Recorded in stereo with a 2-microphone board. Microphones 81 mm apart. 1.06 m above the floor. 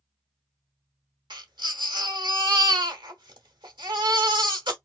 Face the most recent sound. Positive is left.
turn(degrees=-65)  # may be behind; listen again after turning